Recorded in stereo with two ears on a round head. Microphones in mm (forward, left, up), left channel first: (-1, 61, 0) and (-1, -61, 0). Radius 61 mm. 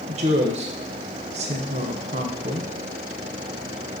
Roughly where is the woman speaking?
Right.